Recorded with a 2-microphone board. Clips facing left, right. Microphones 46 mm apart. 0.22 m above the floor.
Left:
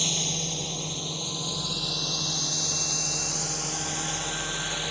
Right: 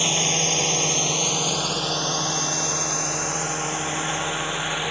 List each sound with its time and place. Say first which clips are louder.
0.0 s a drone: right 8 dB; 50° right (ahead or behind); by 4.9 s 35° right (ahead or behind)